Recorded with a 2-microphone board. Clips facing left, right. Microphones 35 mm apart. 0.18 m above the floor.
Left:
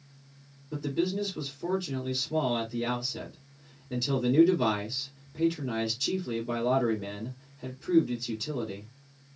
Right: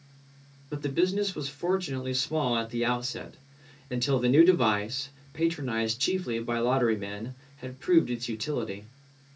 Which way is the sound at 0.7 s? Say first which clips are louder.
Right 3 dB; 65° right (ahead or behind).